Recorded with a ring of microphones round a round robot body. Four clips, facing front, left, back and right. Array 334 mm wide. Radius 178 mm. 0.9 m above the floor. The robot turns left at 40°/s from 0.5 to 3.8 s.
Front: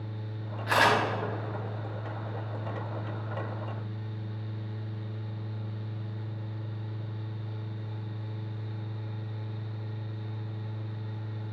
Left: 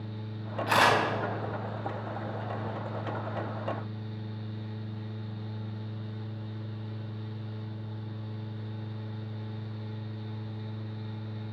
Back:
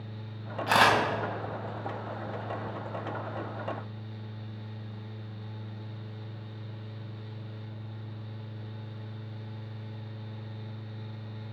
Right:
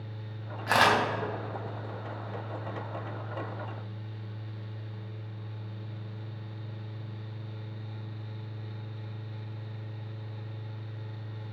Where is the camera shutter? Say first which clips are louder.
Even, back 1 dB; 140° right, 3 m; by 0.9 s 150° right, 3 m.